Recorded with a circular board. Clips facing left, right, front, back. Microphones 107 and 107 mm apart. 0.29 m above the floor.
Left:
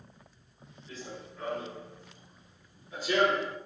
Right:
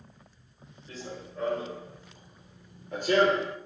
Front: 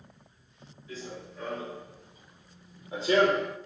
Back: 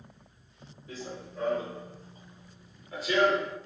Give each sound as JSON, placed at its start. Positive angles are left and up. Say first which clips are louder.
{"t": 0.9, "sound": "running footsteps", "louder": "right 3 dB, even", "azimuth_deg": -140, "distance_m": 1.6}